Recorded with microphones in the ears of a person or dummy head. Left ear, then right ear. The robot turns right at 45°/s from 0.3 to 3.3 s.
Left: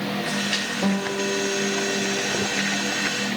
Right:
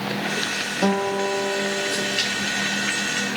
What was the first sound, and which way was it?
A guitar, 75° right.